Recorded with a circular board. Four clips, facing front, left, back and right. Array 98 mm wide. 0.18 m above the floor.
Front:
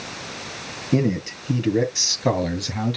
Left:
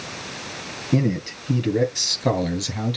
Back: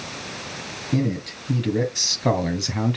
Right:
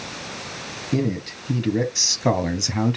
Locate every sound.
0.9 s a man speaking: 35° left, 1.1 m; by 3.0 s 120° right, 1.1 m